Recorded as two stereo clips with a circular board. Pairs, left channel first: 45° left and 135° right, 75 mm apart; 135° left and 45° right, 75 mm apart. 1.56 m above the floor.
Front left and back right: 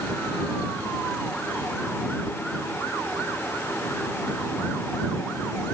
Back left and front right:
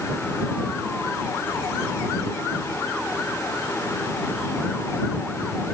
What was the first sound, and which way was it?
Only background noise.